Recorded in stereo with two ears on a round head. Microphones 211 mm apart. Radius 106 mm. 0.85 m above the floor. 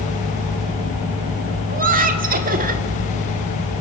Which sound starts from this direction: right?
Laughter, at 1.7 s.